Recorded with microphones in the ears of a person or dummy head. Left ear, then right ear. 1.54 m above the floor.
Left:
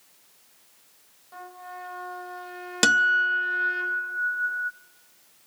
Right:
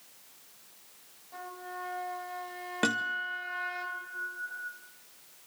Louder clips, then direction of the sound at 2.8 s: Left 12 dB; 90° left.